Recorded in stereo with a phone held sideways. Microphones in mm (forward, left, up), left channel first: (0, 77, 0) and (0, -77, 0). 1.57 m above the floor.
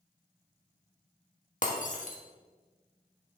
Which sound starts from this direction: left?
Breaking glass, at 1.6 s.